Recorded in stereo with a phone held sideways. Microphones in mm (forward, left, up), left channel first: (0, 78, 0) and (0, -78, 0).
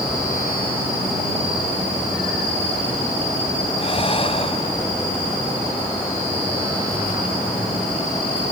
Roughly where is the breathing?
Left.